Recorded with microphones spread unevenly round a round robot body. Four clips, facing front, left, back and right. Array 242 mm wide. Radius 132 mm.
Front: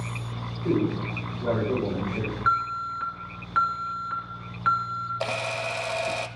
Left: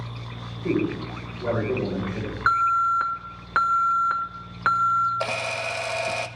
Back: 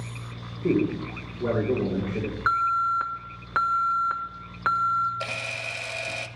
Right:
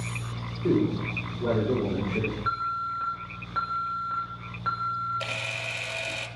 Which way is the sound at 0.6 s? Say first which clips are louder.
Even, back 1 dB; 155° right.